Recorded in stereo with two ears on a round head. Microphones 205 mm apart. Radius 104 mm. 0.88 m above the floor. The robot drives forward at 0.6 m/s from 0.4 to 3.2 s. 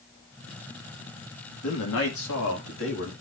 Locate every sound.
1.6 s a man speaking: 70° left (ahead or behind), 2 m; by 3.1 s 60° left (ahead or behind), 2.5 m